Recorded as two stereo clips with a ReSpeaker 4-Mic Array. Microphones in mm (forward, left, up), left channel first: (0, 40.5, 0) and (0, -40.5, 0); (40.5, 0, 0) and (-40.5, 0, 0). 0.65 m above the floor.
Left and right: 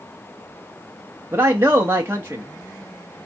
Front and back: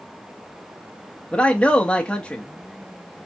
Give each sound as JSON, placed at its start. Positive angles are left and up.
{"t": 1.3, "sound": "a man speaking", "azimuth_deg": -65, "distance_m": 0.8}